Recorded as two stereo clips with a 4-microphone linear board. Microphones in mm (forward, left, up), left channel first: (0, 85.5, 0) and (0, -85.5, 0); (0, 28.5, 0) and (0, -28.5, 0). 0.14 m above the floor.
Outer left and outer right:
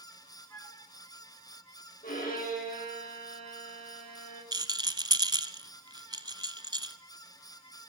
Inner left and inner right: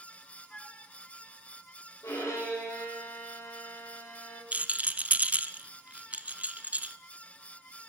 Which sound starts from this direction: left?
A violin, at 2.0 s.